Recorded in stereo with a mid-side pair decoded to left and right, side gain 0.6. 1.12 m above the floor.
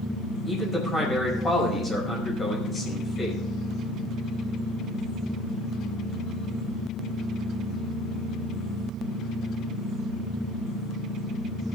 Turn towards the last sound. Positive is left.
turn(degrees=20)